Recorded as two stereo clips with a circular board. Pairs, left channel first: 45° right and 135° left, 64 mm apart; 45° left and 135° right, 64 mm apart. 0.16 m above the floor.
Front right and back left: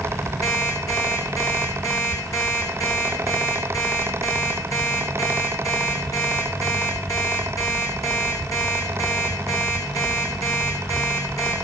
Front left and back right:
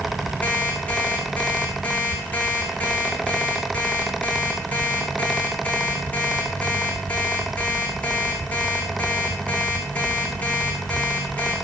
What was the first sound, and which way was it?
An alarm clock, 20° right.